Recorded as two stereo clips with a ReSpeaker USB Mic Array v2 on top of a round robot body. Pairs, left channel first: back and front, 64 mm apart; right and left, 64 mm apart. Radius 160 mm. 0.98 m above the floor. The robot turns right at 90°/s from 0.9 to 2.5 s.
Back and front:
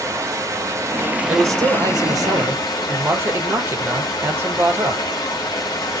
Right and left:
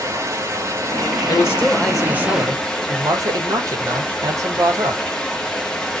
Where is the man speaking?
55° right, 1.0 m; by 5.0 s 55° left, 1.0 m.